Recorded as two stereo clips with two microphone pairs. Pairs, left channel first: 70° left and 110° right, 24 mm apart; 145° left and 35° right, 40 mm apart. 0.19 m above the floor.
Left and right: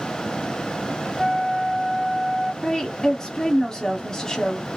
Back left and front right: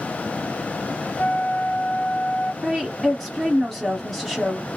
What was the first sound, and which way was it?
A flute, 150° left.